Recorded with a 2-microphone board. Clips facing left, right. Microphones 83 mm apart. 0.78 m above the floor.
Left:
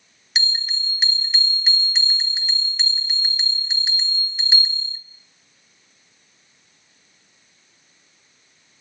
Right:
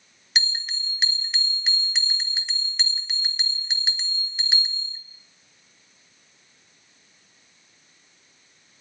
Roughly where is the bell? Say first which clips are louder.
Left 1 dB; centre.